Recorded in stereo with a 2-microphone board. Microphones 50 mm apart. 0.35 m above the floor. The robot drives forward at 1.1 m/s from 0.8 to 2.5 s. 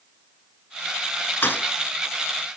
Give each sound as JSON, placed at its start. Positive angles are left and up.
{"t": 1.4, "sound": "a thud", "side_deg": 40, "distance_m": 1.9}